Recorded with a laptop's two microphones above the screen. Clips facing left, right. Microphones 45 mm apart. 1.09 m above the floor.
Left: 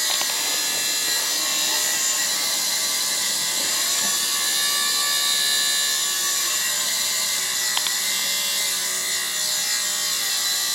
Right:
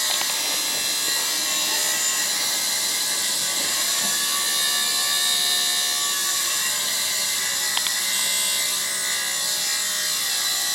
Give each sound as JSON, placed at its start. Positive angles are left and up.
{"t": 0.0, "sound": "a machine running", "side_deg": 0, "distance_m": 8.5}